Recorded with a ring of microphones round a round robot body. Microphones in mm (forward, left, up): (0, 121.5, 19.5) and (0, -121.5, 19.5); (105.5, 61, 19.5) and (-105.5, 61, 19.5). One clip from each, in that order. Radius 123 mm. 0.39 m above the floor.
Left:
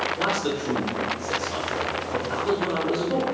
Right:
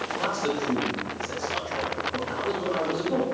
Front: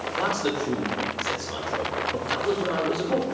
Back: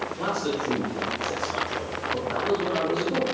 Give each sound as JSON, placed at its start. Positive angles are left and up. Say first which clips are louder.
{"t": 0.2, "sound": "a man speaking", "louder": "left 2 dB, front 3 dB", "azimuth_deg": 5, "distance_m": 1.3}